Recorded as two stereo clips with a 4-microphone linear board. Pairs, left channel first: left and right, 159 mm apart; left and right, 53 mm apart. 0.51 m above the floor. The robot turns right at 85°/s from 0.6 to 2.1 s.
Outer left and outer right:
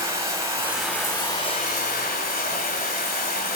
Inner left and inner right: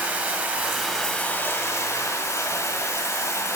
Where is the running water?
20° right, 1.3 m; by 3.6 s 110° left, 1.3 m.